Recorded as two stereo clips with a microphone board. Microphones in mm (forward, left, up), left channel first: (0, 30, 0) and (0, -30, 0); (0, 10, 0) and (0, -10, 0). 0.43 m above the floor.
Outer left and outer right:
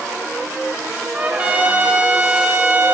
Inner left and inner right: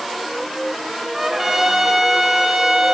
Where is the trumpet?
25° right (ahead or behind), 1.1 m.